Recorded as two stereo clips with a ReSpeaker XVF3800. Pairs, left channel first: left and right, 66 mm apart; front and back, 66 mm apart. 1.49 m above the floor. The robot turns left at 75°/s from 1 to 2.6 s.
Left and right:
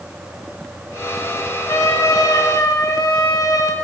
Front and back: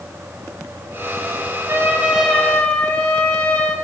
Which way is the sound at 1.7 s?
130° left.